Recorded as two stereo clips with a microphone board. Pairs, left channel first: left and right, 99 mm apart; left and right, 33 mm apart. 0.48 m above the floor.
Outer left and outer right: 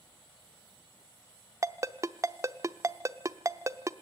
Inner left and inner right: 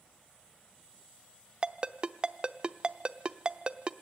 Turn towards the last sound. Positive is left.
turn(degrees=-30)  # may be behind; listen again after turning